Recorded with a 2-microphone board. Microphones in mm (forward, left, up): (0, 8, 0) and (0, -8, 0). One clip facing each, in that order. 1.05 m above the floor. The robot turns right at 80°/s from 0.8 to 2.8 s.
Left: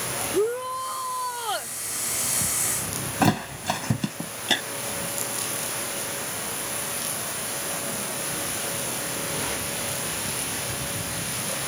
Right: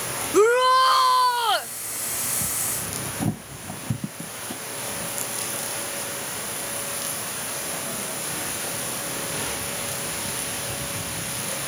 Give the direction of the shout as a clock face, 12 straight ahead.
3 o'clock.